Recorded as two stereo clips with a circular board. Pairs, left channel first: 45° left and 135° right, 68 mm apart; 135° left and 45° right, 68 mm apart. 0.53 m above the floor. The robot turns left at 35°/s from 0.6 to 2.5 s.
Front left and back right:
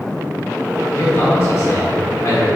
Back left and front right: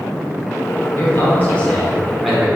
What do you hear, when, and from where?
0.9 s a man speaking: 95° left, 1.2 m; by 2.5 s 40° left, 1.2 m